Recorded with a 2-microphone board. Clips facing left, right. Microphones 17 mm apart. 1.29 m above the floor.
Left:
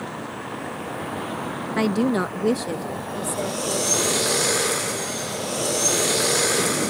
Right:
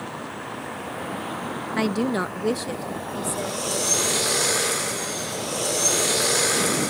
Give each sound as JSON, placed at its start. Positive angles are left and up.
{"t": 1.8, "sound": "a woman speaking", "side_deg": 0}